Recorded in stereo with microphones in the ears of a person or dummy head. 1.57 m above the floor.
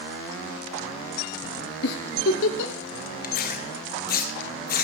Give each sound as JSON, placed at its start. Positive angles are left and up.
{"t": 1.8, "sound": "a giggle", "side_deg": 65, "distance_m": 1.4}
{"t": 3.2, "sound": "tearing paper", "side_deg": 45, "distance_m": 1.7}